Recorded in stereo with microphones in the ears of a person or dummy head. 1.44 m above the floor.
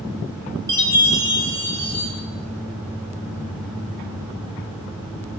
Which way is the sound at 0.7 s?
15° right (ahead or behind).